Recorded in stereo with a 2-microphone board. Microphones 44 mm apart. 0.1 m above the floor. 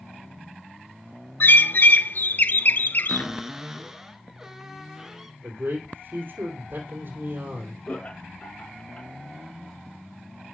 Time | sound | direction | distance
1.4 | a bird | 50° left (ahead or behind) | 0.5 m
3.1 | a cupboard door | 10° right (ahead or behind) | 1.3 m
5.4 | a man speaking | 55° right (ahead or behind) | 3 m
7.9 | laughter | 30° left (ahead or behind) | 1.7 m